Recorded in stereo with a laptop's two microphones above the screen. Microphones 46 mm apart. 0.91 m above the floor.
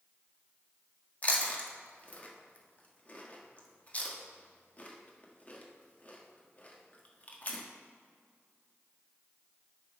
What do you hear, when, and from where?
1.2 s chewing: 30° left (ahead or behind), 1.3 m